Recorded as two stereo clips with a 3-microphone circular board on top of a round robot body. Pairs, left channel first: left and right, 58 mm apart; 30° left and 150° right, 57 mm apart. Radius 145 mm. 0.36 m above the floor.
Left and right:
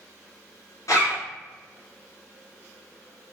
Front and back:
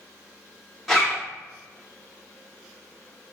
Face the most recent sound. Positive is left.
turn(degrees=120)